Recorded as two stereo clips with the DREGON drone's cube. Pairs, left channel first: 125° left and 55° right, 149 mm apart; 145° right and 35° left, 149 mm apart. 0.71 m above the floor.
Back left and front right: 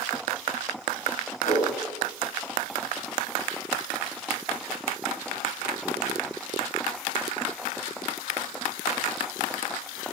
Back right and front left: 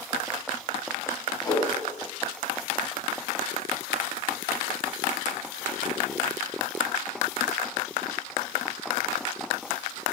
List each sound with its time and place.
1.4 s a whoosh: 155° left, 6 m